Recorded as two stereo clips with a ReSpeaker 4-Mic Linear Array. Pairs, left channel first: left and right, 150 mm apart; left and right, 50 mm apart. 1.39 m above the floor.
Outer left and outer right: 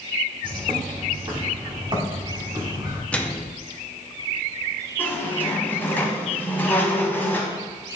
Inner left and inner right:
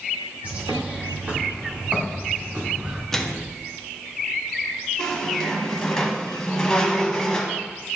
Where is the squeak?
15° left (ahead or behind), 1.3 m.